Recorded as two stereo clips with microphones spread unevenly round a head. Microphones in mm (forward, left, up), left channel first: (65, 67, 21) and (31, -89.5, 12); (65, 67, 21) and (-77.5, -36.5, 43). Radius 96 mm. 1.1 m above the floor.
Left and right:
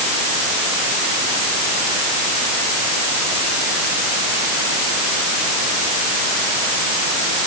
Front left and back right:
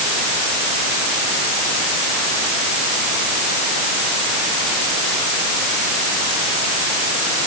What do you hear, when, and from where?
Only background noise.